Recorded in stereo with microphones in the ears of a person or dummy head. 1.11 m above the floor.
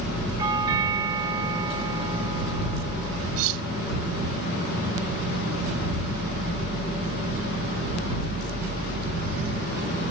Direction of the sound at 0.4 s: 20° right (ahead or behind).